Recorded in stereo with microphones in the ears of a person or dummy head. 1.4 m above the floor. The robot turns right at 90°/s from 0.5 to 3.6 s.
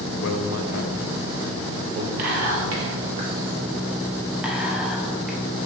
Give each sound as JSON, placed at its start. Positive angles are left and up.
{"t": 0.2, "sound": "a man speaking", "side_deg": 70, "distance_m": 0.6}
{"t": 2.2, "sound": "whispering", "side_deg": -50, "distance_m": 1.0}